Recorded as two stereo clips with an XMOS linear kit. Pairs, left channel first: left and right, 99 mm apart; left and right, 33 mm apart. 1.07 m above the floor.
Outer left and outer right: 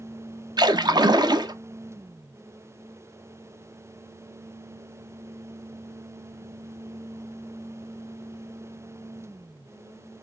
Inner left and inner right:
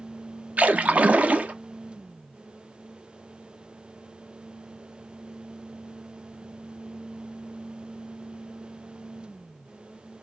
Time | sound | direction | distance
0.6 | a splash | 45° right (ahead or behind) | 0.6 m